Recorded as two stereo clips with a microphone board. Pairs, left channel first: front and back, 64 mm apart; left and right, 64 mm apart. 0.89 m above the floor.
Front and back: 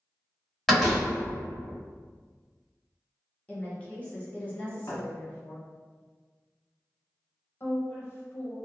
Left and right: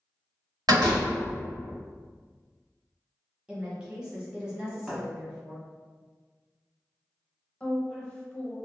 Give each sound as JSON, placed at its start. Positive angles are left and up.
{"t": 0.7, "sound": "a door slam", "azimuth_deg": -90, "distance_m": 1.5}
{"t": 3.5, "sound": "a woman speaking", "azimuth_deg": -35, "distance_m": 0.8}
{"t": 4.9, "sound": "a thud", "azimuth_deg": 0, "distance_m": 1.0}
{"t": 7.6, "sound": "a woman speaking", "azimuth_deg": 20, "distance_m": 0.7}